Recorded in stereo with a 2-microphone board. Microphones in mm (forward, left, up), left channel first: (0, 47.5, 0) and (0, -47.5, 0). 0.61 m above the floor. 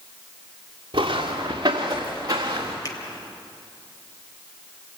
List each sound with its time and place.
0.9 s footsteps: 50° right (ahead or behind), 4.5 m; by 2.8 s 35° right (ahead or behind), 4.5 m
2.9 s a finger snap: 40° left (ahead or behind), 3 m